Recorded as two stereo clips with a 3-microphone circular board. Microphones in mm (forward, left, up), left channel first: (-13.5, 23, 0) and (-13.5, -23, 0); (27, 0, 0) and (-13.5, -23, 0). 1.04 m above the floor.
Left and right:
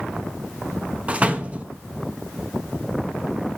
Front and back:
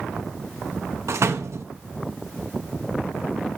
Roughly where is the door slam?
Behind right.